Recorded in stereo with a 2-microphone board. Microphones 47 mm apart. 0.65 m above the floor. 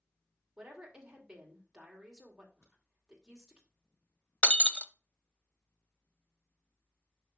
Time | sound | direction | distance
0.6 | a woman speaking | 15° right (ahead or behind) | 2.5 m
2.6 | a crack | 75° left (ahead or behind) | 5.5 m
4.4 | breaking glass | 25° left (ahead or behind) | 0.5 m